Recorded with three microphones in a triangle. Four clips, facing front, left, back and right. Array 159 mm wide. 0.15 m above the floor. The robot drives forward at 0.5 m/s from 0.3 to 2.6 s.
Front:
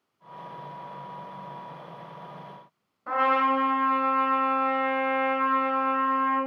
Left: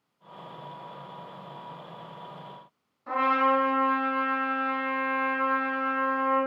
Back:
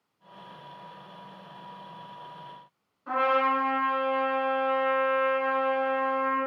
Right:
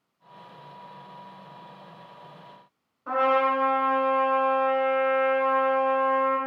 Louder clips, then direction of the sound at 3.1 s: Right 1 dB, front 1 dB; 50° right.